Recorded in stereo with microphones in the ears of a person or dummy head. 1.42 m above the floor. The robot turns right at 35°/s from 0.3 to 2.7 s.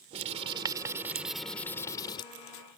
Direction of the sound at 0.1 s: 35° right.